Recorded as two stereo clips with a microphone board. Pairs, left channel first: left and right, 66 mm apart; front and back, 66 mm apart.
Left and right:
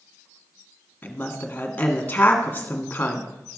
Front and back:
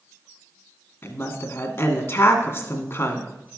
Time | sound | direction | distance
1.0 | a woman speaking | 30° left | 1.6 m